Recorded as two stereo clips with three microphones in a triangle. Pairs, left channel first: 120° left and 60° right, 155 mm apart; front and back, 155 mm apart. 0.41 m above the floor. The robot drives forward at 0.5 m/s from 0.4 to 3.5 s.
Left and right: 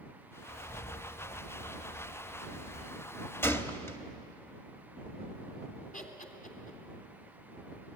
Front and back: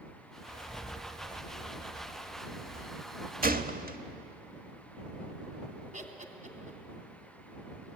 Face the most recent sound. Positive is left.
turn(degrees=145)